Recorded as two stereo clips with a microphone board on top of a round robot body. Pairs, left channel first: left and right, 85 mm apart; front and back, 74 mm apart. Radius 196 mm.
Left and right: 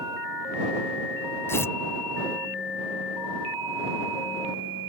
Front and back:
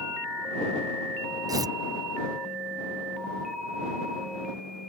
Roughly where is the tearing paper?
Behind left.